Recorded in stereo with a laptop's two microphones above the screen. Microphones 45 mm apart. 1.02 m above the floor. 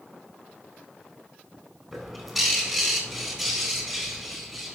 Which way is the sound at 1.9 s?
10° right (ahead or behind).